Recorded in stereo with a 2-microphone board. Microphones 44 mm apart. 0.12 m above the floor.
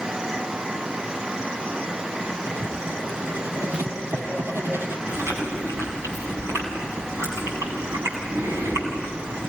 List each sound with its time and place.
2.5 s writing: 65° right (ahead or behind), 2.5 m
5.1 s chewing: 85° right, 7.5 m